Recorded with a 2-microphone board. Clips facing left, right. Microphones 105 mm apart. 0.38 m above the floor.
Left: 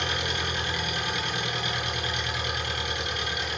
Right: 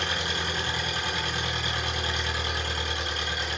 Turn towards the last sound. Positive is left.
turn(degrees=-30)  # may be behind; listen again after turning